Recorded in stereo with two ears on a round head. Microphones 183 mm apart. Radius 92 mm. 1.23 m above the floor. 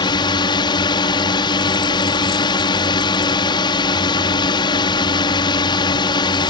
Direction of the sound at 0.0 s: 25° left (ahead or behind).